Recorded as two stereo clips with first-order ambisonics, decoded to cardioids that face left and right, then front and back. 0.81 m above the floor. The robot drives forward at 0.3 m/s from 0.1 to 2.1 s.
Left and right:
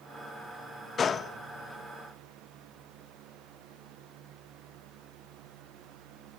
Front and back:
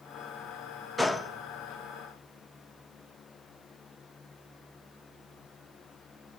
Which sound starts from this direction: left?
A gunshot, at 1.0 s.